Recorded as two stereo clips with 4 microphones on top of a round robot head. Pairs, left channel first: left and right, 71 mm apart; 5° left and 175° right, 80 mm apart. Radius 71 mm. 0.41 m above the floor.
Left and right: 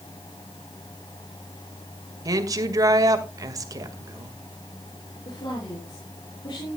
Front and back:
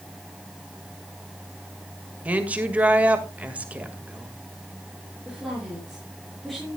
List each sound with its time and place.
2.2 s a woman speaking: 105° right, 1.9 m
5.2 s a woman speaking: 95° left, 6 m